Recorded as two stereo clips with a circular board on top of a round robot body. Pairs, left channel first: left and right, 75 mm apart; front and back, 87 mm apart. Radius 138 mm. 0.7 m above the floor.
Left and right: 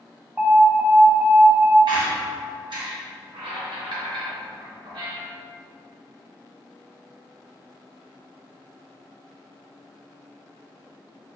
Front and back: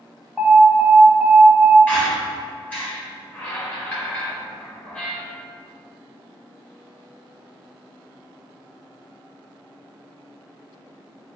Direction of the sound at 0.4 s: 85° right.